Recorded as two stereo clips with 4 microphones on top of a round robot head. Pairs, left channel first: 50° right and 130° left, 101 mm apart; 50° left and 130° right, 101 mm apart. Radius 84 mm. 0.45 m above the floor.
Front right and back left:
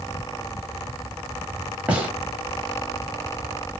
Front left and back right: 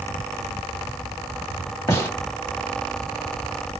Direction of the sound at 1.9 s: 70° left.